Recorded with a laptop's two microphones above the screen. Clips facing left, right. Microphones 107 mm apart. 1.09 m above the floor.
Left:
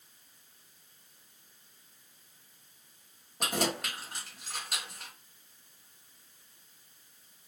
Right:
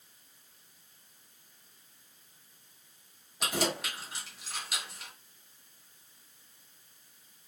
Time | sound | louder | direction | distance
3.4 | keys jangling | even | 45° left (ahead or behind) | 1.2 m